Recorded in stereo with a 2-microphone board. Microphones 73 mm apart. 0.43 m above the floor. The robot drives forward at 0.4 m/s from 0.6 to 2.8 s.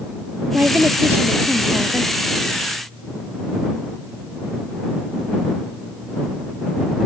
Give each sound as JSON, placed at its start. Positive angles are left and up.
{"t": 0.5, "sound": "a woman speaking", "side_deg": -25}